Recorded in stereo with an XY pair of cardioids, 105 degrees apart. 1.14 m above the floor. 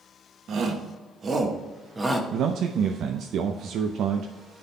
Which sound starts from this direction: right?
A man speaking, at 2.3 s.